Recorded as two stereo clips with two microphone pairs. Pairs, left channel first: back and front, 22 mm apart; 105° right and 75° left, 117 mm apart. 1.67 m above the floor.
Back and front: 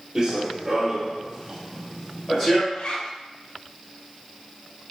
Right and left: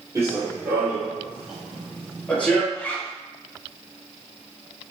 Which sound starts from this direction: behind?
A zipper, at 2.7 s.